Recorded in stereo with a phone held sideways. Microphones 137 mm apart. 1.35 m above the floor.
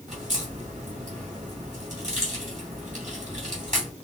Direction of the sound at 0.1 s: 65° right (ahead or behind).